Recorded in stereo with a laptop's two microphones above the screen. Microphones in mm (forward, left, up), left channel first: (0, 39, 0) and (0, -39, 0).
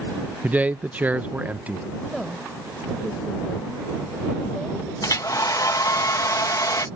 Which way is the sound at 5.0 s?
50° left (ahead or behind).